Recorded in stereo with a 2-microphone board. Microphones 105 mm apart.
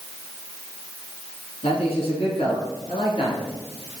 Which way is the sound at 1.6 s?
65° left (ahead or behind).